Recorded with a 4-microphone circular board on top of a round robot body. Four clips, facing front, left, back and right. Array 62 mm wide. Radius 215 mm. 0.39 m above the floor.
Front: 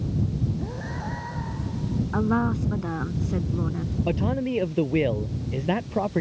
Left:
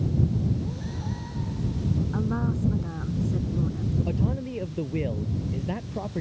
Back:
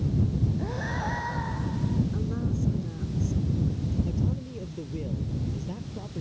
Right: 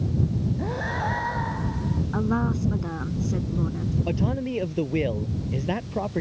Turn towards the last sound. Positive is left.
turn(degrees=-20)